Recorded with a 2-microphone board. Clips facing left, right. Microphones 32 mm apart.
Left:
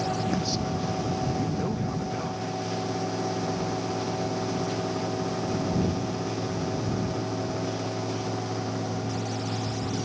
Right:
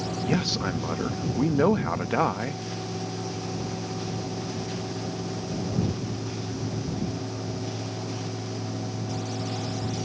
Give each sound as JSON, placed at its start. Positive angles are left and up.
{"t": 0.2, "sound": "a man speaking", "side_deg": -80}